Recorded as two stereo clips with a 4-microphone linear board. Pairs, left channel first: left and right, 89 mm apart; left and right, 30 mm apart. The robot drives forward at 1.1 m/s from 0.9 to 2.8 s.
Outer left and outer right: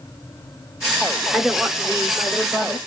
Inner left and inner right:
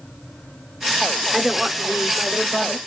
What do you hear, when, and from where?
1.3 s a woman speaking: centre (ahead or behind), 0.9 m